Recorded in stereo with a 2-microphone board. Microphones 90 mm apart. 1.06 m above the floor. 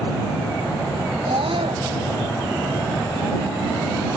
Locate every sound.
1.2 s a scream: 80° right